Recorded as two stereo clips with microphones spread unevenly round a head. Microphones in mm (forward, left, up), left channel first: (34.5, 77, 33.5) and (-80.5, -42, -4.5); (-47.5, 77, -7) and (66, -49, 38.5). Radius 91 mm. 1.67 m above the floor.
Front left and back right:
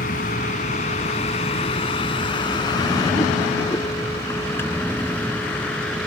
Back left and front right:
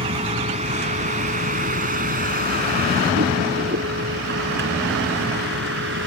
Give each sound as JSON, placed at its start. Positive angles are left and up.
{"t": 0.0, "sound": "a vehicle", "azimuth_deg": 5}